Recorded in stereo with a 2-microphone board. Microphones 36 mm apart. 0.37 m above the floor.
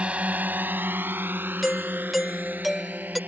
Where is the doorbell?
Centre (ahead or behind).